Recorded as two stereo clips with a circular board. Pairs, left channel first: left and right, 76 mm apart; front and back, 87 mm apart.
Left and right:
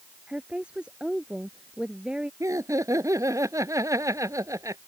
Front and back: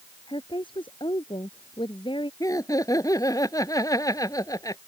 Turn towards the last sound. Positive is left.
turn(degrees=-45)